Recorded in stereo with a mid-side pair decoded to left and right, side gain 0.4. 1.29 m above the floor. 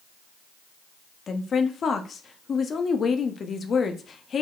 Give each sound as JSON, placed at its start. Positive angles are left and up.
{"t": 1.3, "sound": "a woman speaking", "azimuth_deg": 50, "distance_m": 0.8}